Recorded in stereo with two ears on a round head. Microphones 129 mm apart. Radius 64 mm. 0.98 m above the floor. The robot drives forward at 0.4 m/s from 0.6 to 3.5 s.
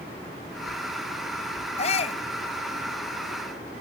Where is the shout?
45° left (ahead or behind).